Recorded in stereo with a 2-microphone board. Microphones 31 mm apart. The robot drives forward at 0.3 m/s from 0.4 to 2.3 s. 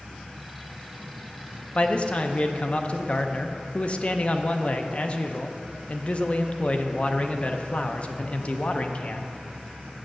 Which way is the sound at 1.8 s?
40° left (ahead or behind).